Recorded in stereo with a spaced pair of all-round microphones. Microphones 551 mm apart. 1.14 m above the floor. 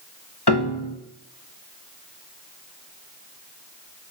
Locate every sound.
0.5 s a piano: 45° left (ahead or behind), 1.3 m